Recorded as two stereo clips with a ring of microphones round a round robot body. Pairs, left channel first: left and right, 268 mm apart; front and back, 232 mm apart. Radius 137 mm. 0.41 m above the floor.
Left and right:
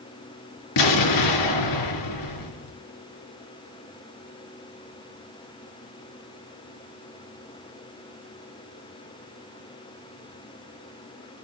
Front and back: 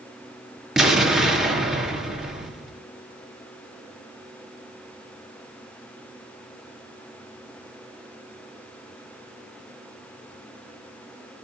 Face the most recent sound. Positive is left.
turn(degrees=90)